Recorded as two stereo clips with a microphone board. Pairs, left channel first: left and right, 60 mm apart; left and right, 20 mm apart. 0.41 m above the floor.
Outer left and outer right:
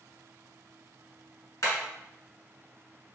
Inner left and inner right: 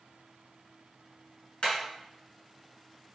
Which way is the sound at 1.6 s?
55° left (ahead or behind).